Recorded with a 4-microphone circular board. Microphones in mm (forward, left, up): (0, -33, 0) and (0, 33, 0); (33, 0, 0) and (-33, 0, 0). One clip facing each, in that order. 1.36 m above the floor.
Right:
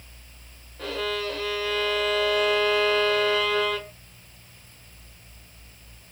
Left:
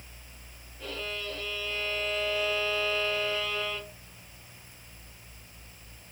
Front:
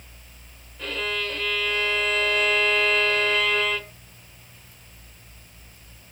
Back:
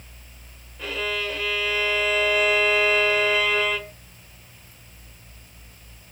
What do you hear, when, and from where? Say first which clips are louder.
0.8 s a violin: right 8 dB, back 1 dB; 95° right, 0.5 m